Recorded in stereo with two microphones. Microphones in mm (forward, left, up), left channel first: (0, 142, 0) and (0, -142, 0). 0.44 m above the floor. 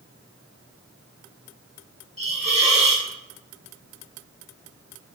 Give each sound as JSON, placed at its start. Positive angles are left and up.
{"t": 2.2, "sound": "a hiss", "side_deg": -20, "distance_m": 0.7}